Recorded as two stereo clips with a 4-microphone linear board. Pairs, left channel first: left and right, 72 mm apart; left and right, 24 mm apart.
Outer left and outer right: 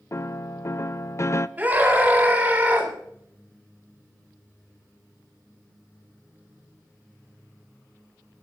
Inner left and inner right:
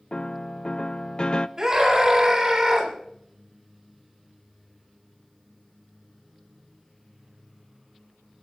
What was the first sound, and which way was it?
A piano, 40° left (ahead or behind).